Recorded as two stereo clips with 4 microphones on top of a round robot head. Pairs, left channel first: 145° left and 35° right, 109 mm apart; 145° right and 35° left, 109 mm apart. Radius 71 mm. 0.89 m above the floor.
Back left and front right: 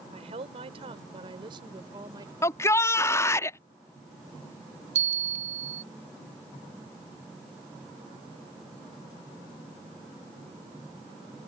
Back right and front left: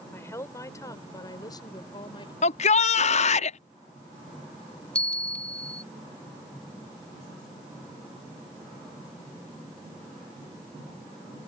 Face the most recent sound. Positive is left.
turn(degrees=-60)